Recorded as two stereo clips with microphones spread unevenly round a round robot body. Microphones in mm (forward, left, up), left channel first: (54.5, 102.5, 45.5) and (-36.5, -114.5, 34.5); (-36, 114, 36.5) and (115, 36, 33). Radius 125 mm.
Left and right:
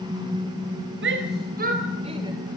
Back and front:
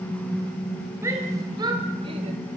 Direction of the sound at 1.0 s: 100° right.